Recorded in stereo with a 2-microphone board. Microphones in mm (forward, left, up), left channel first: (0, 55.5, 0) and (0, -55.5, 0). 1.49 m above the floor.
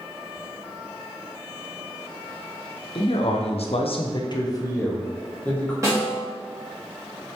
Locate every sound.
3.0 s a man speaking: 50° left (ahead or behind), 0.6 m; by 5.7 s 10° left (ahead or behind), 1.1 m
5.8 s a snare drum: 30° right (ahead or behind), 1.7 m